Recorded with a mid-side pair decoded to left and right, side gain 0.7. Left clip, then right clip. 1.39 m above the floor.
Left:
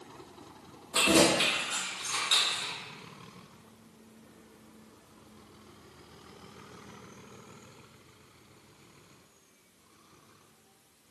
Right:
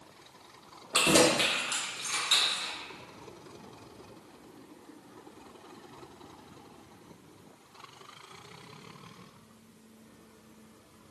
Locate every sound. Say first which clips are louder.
0.9 s keys jangling: even; 60° right, 1.4 m; by 2.7 s 5° left, 1.1 m